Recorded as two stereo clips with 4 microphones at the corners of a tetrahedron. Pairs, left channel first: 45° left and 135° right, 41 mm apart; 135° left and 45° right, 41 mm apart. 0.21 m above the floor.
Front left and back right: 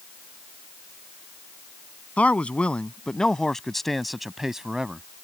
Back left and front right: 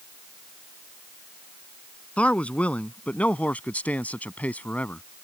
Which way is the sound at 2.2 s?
90° left.